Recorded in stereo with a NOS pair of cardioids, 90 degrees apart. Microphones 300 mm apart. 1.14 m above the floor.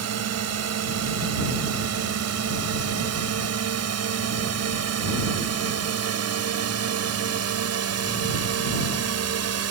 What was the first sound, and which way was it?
A drone, 60° right.